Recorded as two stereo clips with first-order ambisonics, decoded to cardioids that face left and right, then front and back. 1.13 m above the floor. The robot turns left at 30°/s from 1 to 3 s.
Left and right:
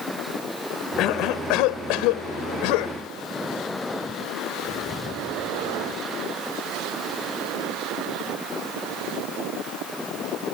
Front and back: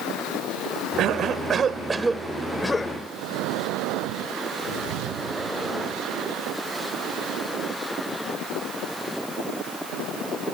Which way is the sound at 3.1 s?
165° left.